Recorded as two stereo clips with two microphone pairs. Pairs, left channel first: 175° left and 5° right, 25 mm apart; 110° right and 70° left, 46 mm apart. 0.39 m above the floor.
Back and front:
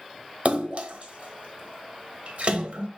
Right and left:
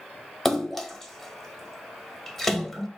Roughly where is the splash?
Ahead right.